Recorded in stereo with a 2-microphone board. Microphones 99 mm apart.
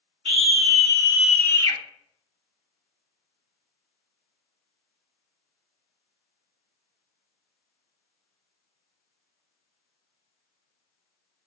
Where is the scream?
65° right (ahead or behind), 1.7 m; by 1.8 s 45° left (ahead or behind), 1.0 m.